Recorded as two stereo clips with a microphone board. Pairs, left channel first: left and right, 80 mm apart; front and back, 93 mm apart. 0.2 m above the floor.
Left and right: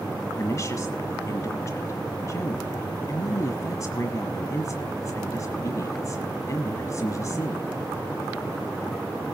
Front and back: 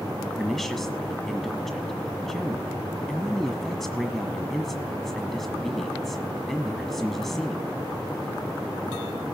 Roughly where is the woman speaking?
Left.